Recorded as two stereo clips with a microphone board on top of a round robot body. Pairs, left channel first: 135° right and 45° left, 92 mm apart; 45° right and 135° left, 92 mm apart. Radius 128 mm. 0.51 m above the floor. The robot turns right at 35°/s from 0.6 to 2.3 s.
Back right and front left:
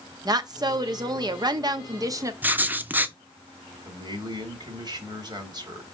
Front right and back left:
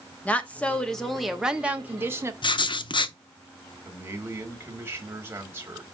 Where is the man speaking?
70° left, 2.5 m.